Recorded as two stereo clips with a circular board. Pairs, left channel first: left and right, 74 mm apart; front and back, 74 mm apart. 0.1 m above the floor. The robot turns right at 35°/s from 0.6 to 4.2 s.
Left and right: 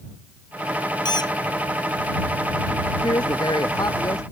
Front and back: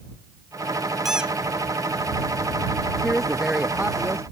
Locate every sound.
1.1 s a squeak: 95° left; by 1.3 s 105° left
3.0 s a woman speaking: 85° left; by 4.2 s 125° left